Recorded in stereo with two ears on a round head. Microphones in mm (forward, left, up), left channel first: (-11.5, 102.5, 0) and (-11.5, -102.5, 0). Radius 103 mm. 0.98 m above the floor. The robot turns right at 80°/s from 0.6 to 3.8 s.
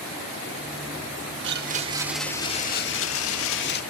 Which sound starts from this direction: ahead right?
A blender, at 1.4 s.